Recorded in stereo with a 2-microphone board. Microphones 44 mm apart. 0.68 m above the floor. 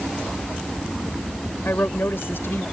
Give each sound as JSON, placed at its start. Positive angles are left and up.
{"t": 1.6, "sound": "a woman speaking", "side_deg": 60}